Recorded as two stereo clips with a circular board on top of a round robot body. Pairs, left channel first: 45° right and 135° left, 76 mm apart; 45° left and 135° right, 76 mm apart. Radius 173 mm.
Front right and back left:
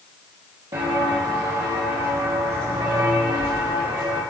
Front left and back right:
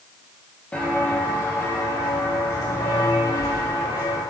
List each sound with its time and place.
0.7 s footsteps: 115° left, 1.7 m; by 4.2 s 75° left, 5.5 m